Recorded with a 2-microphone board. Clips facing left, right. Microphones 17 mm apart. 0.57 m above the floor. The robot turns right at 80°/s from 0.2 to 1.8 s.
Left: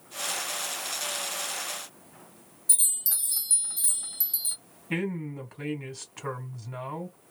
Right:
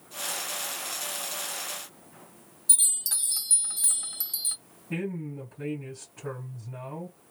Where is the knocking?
No knocking in this recording.